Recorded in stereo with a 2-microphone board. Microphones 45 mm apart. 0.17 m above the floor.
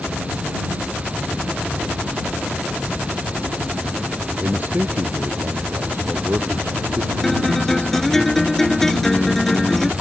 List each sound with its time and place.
4.4 s a man speaking: 35° right (ahead or behind); by 8.2 s 80° right
7.2 s a guitar: 10° left (ahead or behind)